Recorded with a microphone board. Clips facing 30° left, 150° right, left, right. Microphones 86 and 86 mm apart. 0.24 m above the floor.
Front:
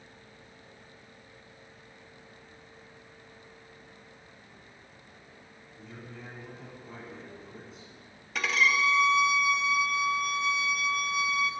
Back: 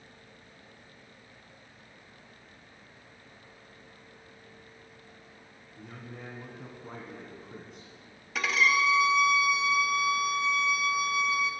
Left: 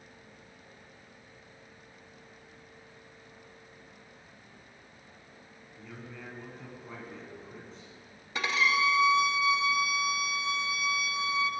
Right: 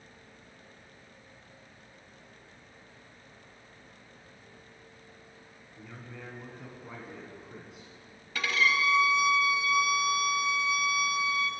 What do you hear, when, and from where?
5.8 s a man speaking: 170° right, 1.8 m
8.3 s a violin: 125° left, 0.6 m